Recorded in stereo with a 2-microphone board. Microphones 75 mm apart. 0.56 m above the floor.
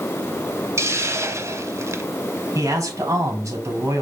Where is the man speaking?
45° right (ahead or behind), 4 m.